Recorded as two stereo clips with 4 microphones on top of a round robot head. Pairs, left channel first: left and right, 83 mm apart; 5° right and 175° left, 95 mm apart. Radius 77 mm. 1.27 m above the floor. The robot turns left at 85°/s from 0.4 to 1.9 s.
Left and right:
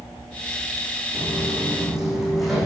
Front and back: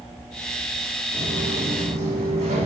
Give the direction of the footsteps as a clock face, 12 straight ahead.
4 o'clock.